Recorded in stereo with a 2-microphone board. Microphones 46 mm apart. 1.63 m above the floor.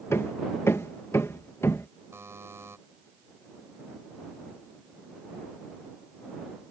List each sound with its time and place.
0.1 s hammering: 75° left (ahead or behind)
2.1 s a buzzer: 75° right (ahead or behind)